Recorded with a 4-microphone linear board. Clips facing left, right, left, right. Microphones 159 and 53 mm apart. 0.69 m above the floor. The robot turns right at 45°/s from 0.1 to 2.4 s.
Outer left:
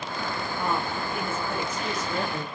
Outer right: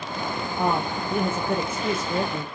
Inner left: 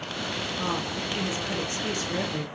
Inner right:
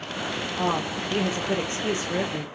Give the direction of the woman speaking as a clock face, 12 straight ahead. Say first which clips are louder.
Outer right 5 dB, inner right 5 dB; 4 o'clock.